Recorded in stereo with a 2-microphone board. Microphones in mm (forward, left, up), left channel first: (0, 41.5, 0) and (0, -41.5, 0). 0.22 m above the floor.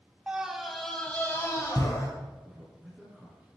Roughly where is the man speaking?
Centre.